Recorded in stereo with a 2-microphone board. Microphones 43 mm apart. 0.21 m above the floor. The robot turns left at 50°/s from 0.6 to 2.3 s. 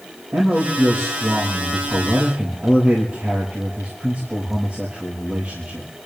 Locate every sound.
0.3 s a man speaking: 65° right, 5.5 m; by 5.9 s 150° right, 5.5 m